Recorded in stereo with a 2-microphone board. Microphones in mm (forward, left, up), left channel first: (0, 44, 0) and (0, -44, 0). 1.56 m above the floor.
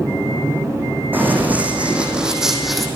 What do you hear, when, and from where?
1.1 s running footsteps: 20° right (ahead or behind), 5.5 m; by 2.9 s centre (ahead or behind), 4.5 m